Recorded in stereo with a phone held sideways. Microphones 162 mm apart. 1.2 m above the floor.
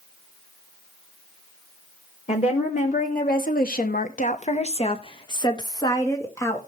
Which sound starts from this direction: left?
A woman speaking, at 2.3 s.